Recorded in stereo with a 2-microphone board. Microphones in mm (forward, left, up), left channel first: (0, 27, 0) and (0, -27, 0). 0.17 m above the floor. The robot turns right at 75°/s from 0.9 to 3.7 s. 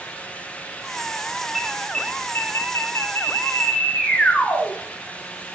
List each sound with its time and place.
1.6 s an alarm: 10° right, 2.5 m; by 4.8 s 150° left, 2.5 m